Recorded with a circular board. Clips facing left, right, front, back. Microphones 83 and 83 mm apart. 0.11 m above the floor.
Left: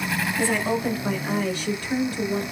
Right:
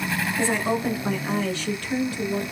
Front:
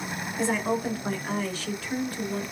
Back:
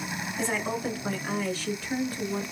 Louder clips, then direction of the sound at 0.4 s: Even, front 4 dB; 80° right.